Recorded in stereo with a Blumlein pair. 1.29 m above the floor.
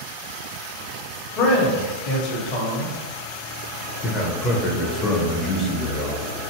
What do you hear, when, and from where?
1.4 s a man speaking: 40° left, 1.0 m
4.0 s a man speaking: 20° left, 0.7 m